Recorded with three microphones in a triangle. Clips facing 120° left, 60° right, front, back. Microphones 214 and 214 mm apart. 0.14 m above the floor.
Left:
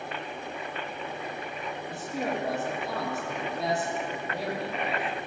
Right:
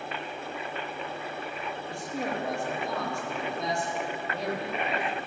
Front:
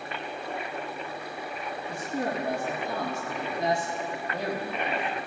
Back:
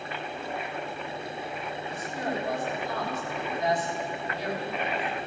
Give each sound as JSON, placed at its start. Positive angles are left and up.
{"t": 1.9, "sound": "a man speaking", "azimuth_deg": 35, "distance_m": 3.5}